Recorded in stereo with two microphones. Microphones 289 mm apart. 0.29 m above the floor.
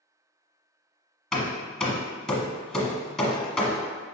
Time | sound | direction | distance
1.3 | hammering | centre (ahead or behind) | 0.9 m